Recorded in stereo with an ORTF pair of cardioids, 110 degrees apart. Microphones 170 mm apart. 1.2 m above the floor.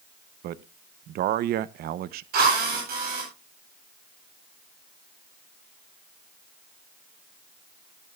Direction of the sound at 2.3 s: 65° right.